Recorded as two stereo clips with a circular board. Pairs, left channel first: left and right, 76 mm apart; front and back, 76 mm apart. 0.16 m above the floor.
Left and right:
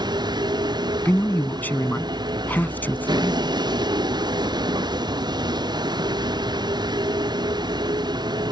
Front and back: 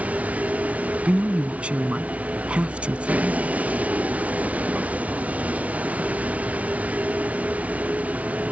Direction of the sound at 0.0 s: 110° right.